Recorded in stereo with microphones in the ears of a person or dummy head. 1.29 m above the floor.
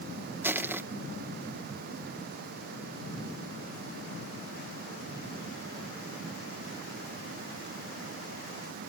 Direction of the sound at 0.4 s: 5° right (ahead or behind).